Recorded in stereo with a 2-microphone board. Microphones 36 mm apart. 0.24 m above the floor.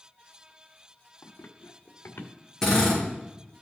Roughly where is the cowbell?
I don't hear a cowbell.